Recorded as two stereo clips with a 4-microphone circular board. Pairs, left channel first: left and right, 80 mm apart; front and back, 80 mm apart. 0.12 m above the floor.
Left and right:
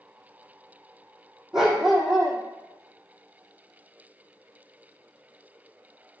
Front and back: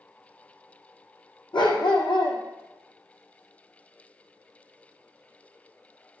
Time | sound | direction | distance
1.5 | a dog barking | 5° right | 2.5 m